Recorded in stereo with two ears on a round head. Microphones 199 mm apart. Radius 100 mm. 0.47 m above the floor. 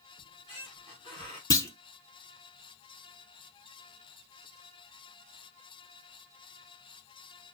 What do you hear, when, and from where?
0.2 s a squeak: 25° left (ahead or behind), 2.5 m
1.5 s a clunk: 15° left (ahead or behind), 0.6 m